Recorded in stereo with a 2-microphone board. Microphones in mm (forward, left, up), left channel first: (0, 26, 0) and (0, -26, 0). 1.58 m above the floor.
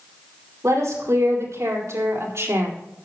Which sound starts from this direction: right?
A woman speaking, at 0.6 s.